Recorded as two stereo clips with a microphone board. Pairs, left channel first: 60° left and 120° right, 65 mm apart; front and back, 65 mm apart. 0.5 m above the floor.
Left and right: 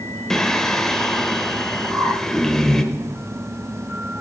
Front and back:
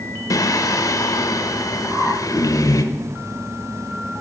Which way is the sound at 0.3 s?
20° right.